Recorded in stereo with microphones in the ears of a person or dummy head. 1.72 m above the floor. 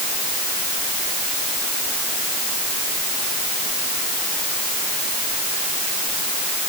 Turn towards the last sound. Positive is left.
No sound to turn to.